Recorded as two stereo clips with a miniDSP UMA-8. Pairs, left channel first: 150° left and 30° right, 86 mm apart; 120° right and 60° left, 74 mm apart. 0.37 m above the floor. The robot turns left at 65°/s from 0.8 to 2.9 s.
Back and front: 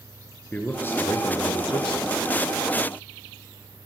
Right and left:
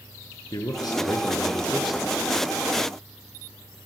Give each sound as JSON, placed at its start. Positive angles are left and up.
{"t": 0.5, "sound": "a man speaking", "azimuth_deg": -145, "distance_m": 4.5}